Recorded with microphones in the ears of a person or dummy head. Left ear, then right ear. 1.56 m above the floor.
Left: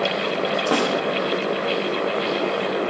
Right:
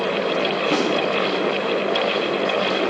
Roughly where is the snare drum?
Left.